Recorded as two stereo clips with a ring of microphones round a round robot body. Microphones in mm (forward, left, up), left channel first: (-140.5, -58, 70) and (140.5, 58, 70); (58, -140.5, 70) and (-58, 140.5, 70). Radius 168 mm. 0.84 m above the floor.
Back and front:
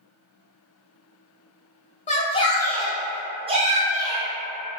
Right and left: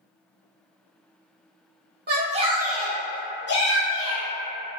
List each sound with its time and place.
2.1 s a shout: 150° left, 0.7 m; by 4.3 s 35° right, 1.0 m